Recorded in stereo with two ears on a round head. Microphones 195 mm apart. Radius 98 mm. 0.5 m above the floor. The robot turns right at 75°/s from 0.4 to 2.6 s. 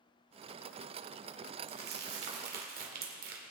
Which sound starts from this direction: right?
Crumpling, at 1.7 s.